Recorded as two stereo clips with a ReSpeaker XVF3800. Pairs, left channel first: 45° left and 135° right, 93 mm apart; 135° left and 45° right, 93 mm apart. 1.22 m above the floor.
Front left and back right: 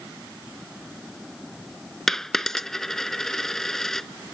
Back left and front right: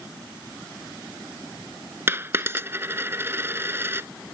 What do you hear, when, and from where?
2.1 s a dropped coin: 35° right